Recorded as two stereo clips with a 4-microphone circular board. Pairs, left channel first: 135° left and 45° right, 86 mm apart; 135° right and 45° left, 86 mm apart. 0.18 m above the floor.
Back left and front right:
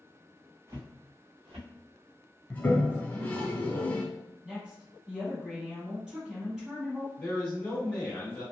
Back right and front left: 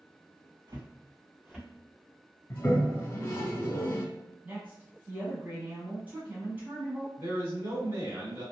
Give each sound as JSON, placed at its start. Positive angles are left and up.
{"t": 0.7, "sound": "footsteps", "azimuth_deg": 5, "distance_m": 0.8}
{"t": 2.5, "sound": "a toilet flushing", "azimuth_deg": -165, "distance_m": 0.8}
{"t": 4.4, "sound": "a woman speaking", "azimuth_deg": 25, "distance_m": 1.1}
{"t": 7.2, "sound": "a man speaking", "azimuth_deg": 65, "distance_m": 1.3}